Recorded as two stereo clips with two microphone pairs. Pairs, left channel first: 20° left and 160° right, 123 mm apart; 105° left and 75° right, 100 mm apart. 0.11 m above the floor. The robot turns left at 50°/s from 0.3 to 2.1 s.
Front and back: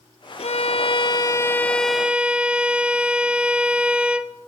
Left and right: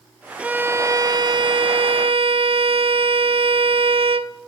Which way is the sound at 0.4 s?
5° left.